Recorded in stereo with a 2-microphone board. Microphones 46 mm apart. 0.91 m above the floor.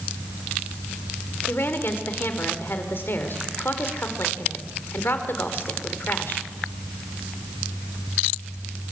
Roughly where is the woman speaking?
Left.